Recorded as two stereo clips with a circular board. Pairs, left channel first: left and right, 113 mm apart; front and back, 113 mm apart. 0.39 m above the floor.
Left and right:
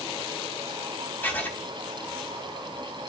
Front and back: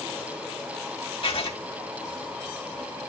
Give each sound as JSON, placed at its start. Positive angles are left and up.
{"t": 1.2, "sound": "writing", "azimuth_deg": 20, "distance_m": 2.5}